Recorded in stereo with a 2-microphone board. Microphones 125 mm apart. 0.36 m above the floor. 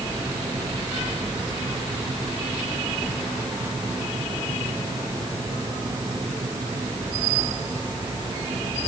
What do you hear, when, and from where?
Only background noise.